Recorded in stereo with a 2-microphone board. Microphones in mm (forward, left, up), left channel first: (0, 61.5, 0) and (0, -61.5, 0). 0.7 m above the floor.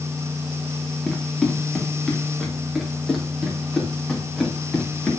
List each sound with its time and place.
1.1 s running footsteps: 5° left (ahead or behind), 2.5 m; by 5.1 s centre (ahead or behind), 5 m